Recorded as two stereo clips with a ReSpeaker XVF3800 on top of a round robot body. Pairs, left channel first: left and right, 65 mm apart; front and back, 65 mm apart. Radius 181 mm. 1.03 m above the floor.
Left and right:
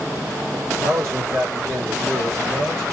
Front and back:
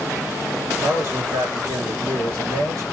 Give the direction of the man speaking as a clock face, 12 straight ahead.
5 o'clock.